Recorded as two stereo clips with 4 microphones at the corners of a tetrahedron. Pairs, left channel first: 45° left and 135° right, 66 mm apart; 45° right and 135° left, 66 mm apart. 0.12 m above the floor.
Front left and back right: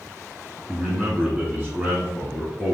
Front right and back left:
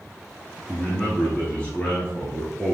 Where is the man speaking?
100° right, 1.2 m.